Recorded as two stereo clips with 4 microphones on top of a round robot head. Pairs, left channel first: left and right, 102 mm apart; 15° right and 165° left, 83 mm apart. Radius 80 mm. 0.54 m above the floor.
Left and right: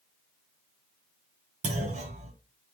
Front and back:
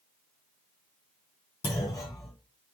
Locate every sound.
1.6 s a clunk: 70° right, 2 m